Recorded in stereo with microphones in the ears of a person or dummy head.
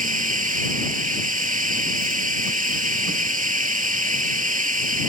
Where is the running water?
35° right (ahead or behind).